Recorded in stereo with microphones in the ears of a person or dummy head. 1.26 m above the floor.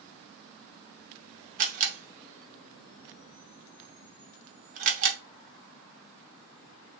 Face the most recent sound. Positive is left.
turn(degrees=-45)  # may be behind; listen again after turning